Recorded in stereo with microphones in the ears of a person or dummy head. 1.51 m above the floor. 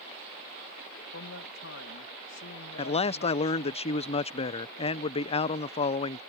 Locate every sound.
1.1 s a man speaking: 60° left (ahead or behind)
2.8 s a man speaking: 30° left (ahead or behind)